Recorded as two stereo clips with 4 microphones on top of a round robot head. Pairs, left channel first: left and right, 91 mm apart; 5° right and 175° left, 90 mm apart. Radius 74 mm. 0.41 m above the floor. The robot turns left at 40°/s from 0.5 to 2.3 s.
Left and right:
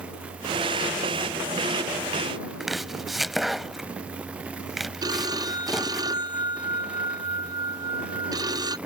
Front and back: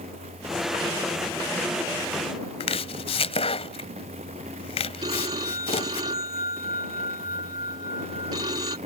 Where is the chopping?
Straight ahead.